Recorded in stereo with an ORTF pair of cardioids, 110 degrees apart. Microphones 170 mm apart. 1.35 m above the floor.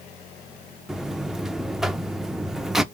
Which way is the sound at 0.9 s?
5° right.